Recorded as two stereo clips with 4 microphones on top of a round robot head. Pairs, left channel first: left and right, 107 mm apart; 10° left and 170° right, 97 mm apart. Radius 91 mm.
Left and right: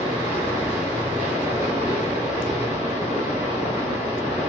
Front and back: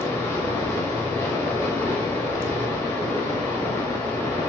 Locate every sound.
0.0 s running water: 80° left, 1.3 m